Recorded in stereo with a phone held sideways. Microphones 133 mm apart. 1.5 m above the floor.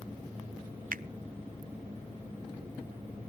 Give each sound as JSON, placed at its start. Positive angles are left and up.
{"t": 0.9, "sound": "a finger snap", "side_deg": -75, "distance_m": 0.5}